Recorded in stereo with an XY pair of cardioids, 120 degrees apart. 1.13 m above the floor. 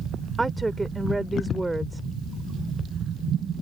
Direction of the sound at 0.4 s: 10° right.